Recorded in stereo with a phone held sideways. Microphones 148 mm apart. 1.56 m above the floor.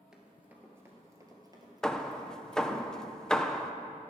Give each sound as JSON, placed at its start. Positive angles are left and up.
{"t": 0.1, "sound": "running footsteps", "side_deg": -5, "distance_m": 1.6}
{"t": 1.8, "sound": "hammering", "side_deg": 5, "distance_m": 0.5}